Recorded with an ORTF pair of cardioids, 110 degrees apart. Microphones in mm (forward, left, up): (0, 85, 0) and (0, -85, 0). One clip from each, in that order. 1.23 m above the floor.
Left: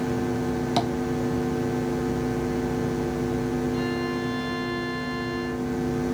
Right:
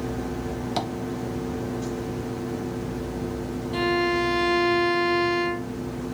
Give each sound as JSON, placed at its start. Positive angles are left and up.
{"t": 0.8, "sound": "tapping", "azimuth_deg": 5, "distance_m": 0.8}
{"t": 3.7, "sound": "a violin", "azimuth_deg": -55, "distance_m": 0.6}